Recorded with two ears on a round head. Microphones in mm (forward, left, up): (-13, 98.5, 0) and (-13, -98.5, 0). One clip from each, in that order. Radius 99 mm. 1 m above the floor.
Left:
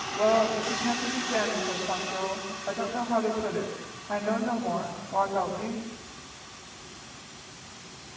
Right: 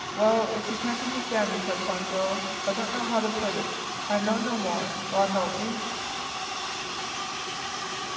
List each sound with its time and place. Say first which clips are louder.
0.2 s a woman speaking: even; 70° right (ahead or behind), 6 m